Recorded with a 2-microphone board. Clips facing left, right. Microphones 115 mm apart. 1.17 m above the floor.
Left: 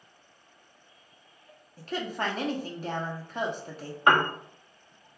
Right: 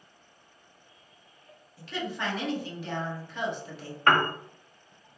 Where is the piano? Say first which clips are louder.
Left 1 dB; 15° left (ahead or behind), 0.6 m.